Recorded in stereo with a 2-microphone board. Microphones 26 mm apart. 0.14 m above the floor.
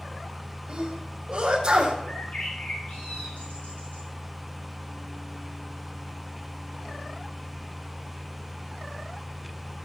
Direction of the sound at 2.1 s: 65° left (ahead or behind).